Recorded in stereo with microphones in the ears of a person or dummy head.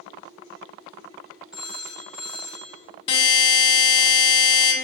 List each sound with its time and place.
1.5 s a phone ringing: 5° right (ahead or behind), 0.7 m
3.1 s a buzzer: 35° left (ahead or behind), 1.1 m